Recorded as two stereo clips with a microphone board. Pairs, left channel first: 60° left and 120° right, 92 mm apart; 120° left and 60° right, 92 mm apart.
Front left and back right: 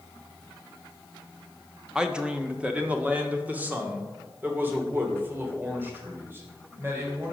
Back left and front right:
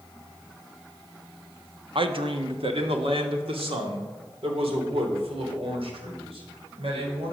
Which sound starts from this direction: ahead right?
A man speaking, at 1.9 s.